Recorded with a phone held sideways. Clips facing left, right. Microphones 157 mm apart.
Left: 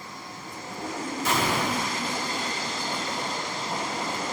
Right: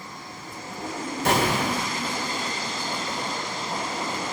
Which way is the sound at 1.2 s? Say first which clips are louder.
Right 4 dB; 80° right.